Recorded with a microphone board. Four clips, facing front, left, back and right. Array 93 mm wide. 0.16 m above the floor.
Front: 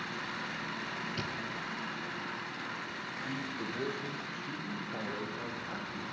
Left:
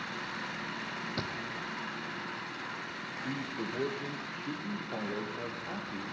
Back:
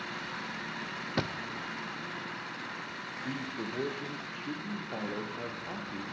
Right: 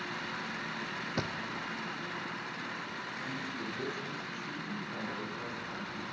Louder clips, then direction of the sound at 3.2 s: Left 5 dB, back 2 dB; 140° left.